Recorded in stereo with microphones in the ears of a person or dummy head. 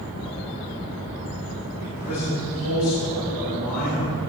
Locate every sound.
1.8 s a man speaking: 45° left (ahead or behind), 3.5 m; by 4.2 s 60° left (ahead or behind), 6.5 m